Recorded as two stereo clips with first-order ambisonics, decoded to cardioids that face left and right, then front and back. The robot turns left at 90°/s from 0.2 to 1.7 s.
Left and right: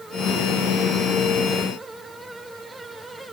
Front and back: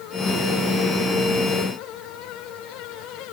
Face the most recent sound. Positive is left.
No sound to turn to.